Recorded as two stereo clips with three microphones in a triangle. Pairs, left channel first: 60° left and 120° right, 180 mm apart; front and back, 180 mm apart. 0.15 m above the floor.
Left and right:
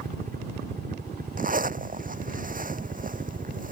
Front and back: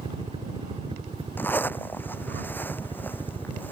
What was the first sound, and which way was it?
A helicopter, 130° right.